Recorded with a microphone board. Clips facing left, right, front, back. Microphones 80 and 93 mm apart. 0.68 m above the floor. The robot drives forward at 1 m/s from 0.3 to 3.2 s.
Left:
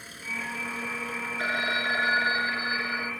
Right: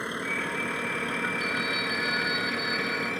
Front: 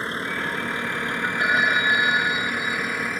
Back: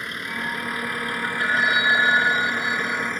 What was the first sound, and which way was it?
A vehicle, 60° right.